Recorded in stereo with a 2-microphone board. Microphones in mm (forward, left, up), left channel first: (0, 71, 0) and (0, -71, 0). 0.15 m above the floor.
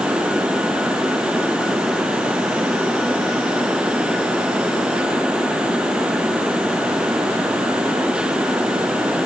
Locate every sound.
Only background noise.